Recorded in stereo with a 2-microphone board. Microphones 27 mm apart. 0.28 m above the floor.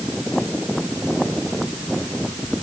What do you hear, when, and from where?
Only background noise.